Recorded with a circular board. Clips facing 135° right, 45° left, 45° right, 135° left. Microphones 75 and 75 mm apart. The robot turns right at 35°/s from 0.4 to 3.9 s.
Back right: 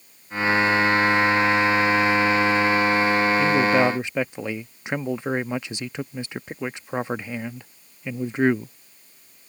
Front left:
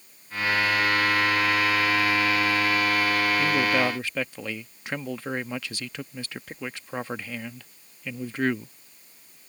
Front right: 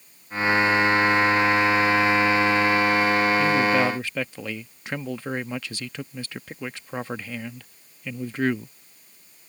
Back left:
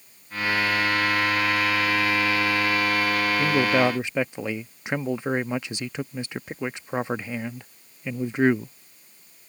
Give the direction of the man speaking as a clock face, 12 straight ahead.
7 o'clock.